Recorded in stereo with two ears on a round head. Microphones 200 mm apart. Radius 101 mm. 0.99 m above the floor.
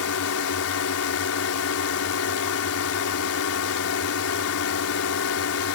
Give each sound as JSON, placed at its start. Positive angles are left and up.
{"t": 0.0, "sound": "a drone", "side_deg": 70}